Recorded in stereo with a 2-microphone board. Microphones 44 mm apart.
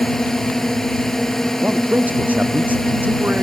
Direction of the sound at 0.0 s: 10° left (ahead or behind).